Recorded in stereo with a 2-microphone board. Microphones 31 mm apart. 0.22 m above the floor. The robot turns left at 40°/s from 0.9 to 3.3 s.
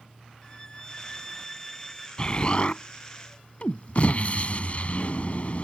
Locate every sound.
0.4 s a violin: 55° left; by 2.1 s 5° left
2.2 s an explosion: 140° left; by 5.7 s 95° left